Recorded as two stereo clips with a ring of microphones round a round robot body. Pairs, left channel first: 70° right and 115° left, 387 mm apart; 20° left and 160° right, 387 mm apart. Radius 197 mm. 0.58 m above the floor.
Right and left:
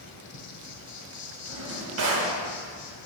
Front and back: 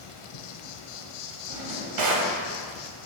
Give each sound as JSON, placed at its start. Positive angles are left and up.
{"t": 0.0, "sound": "an insect", "azimuth_deg": -5, "distance_m": 1.5}
{"t": 1.5, "sound": "a drawer", "azimuth_deg": 165, "distance_m": 2.5}